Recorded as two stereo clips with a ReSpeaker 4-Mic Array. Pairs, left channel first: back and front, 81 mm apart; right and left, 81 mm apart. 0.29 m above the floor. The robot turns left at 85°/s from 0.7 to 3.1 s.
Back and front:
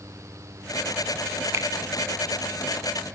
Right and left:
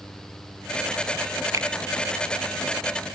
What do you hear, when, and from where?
1.5 s a finger snap: 50° left, 2.5 m; by 1.7 s 35° left, 2.5 m